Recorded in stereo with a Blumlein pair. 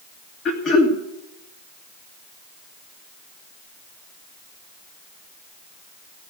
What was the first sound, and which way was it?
Throat clearing, 25° left.